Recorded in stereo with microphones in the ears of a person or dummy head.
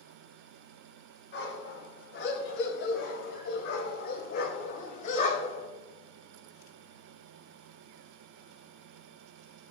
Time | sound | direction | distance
1.3 | a dog barking | 70° left (ahead or behind) | 4 m